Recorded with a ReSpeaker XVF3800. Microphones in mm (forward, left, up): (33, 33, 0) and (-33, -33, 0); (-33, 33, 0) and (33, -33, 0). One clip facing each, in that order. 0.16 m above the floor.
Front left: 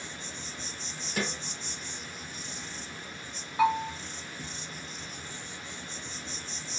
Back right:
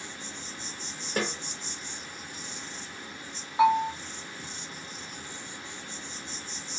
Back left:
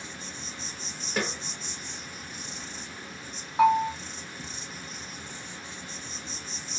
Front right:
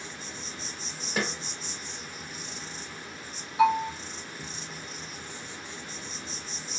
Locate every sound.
0.0 s an insect: 125° right, 1.1 m
1.2 s a snare drum: 130° right, 1.2 m
3.6 s a bell: 160° left, 1.3 m